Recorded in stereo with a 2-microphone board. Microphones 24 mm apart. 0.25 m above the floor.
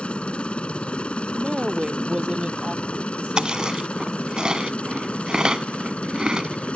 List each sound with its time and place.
0.0 s a helicopter: 55° left (ahead or behind); by 6.8 s 60° left (ahead or behind)
1.3 s a woman speaking: 40° right (ahead or behind)
3.4 s chewing: 40° right (ahead or behind)